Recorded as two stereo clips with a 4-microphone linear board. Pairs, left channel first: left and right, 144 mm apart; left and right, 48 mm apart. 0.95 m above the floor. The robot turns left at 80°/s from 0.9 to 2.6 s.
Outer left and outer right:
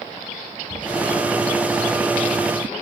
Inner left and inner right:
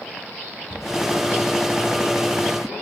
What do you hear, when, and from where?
0.7 s a cupboard door: 50° left (ahead or behind), 3.5 m